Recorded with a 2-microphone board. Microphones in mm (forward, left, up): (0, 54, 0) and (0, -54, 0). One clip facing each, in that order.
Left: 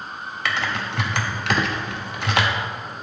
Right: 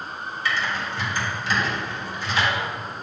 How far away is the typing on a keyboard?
About 0.6 m.